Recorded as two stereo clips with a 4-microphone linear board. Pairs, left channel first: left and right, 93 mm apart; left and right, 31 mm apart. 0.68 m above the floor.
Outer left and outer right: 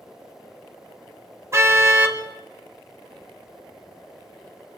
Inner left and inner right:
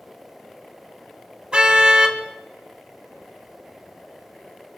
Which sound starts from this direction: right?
A car horn, at 1.5 s.